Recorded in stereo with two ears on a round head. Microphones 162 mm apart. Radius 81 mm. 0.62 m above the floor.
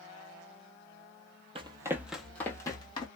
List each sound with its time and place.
1.6 s running footsteps: 30° right (ahead or behind), 0.8 m; by 3.1 s 25° left (ahead or behind), 1.2 m